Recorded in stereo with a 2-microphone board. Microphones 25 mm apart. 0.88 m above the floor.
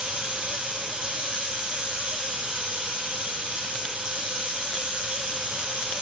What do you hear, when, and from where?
0.0 s running water: 55° right (ahead or behind), 2.5 m